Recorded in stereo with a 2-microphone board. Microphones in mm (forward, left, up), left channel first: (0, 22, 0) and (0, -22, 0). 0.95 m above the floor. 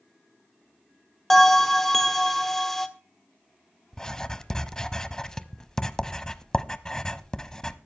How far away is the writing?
About 0.9 m.